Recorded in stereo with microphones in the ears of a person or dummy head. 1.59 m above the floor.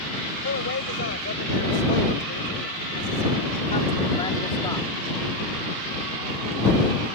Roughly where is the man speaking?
Left.